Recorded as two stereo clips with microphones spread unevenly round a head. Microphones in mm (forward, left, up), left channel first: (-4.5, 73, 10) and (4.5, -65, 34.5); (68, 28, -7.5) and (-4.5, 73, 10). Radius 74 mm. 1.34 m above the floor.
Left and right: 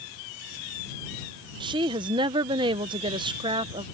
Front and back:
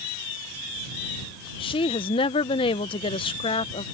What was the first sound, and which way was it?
A woman speaking, 25° right.